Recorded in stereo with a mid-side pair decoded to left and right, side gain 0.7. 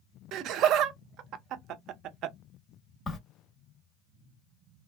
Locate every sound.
0.3 s laughter: 50° right, 0.6 m
3.1 s a crack: 30° left, 0.9 m